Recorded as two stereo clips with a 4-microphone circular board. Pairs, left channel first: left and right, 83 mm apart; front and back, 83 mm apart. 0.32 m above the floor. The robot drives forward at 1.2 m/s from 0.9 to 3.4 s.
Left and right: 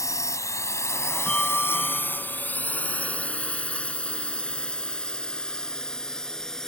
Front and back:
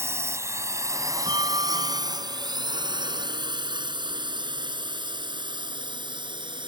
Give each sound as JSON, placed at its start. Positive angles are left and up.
{"t": 0.0, "sound": "a drone", "azimuth_deg": 130}
{"t": 1.3, "sound": "a bell", "azimuth_deg": 165}